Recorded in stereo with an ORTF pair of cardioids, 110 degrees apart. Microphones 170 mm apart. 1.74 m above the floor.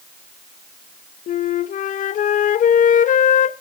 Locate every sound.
1.3 s a flute: 50° left, 0.9 m